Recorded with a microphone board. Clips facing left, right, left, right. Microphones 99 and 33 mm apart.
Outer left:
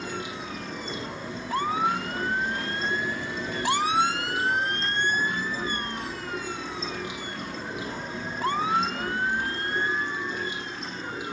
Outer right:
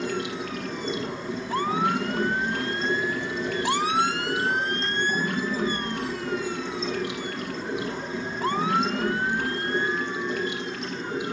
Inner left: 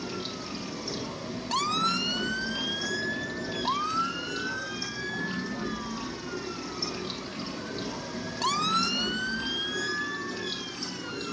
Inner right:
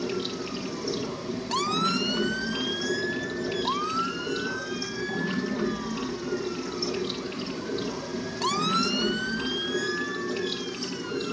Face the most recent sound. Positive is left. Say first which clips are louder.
# outer right 5 dB, inner right 5 dB
turn(degrees=-80)